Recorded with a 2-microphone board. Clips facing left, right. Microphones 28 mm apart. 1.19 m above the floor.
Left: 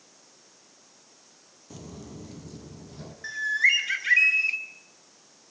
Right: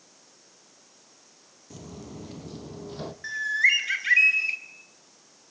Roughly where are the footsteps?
Centre.